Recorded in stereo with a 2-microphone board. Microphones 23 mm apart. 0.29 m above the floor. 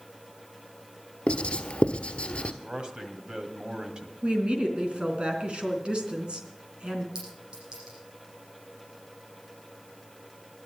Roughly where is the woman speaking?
Right.